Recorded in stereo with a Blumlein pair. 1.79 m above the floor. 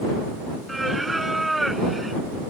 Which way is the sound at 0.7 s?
5° right.